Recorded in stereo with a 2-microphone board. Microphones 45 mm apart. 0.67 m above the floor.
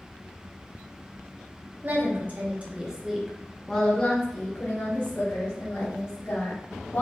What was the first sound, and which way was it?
A woman speaking, 50° right (ahead or behind).